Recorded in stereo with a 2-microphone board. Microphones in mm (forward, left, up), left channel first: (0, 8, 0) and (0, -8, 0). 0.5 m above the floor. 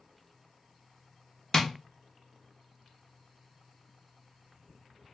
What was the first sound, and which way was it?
Tapping, 35° left (ahead or behind).